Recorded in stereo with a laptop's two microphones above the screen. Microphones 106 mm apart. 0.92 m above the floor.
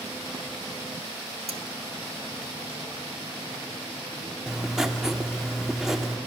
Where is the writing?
5° right (ahead or behind), 1.9 m.